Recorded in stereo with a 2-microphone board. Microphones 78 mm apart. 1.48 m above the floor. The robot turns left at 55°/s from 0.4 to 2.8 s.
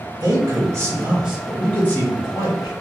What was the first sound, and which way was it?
A man speaking, 130° right.